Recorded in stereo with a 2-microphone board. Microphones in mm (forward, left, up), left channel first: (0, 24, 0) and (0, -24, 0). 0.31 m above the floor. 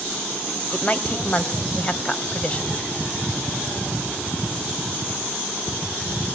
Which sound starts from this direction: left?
A woman speaking, at 0.7 s.